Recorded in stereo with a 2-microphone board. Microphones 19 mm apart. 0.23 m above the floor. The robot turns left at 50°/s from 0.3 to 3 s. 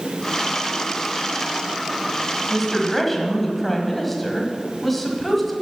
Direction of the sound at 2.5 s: Centre (ahead or behind).